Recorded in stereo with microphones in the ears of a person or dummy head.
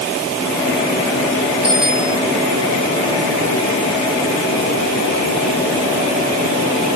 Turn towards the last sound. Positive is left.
turn(degrees=-5)  # may be behind; listen again after turning